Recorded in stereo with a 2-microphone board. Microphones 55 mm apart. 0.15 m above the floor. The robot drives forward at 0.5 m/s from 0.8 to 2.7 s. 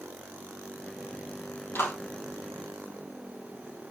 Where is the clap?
45° left (ahead or behind), 4 m.